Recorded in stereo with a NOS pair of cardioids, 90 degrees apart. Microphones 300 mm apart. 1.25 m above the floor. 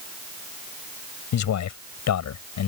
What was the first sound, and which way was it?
A man speaking, 65° left.